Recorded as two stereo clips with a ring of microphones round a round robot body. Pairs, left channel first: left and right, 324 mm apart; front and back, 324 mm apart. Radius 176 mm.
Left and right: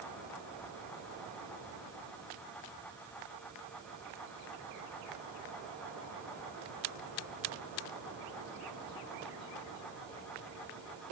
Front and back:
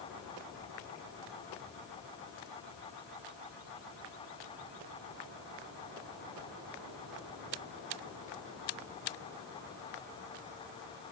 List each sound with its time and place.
Only background noise.